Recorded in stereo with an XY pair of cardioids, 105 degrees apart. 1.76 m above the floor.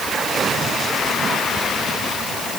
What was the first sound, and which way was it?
Only background noise.